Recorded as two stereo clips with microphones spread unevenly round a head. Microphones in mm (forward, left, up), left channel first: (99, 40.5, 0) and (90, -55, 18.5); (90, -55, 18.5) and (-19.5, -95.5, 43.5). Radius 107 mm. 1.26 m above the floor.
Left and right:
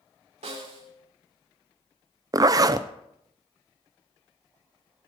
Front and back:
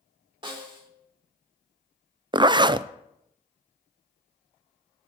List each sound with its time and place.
0.4 s a snare drum: 110° right, 3 m
2.3 s a zipper: 125° right, 0.5 m